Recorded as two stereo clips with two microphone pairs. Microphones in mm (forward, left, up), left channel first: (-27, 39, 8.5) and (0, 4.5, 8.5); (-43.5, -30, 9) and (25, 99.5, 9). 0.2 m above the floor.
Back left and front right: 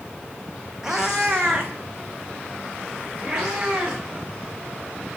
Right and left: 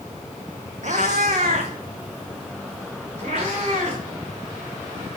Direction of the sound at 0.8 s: 30° left.